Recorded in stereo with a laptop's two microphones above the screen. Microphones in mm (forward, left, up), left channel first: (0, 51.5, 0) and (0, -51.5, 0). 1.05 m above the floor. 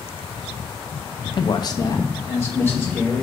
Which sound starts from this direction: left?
A man speaking, at 1.4 s.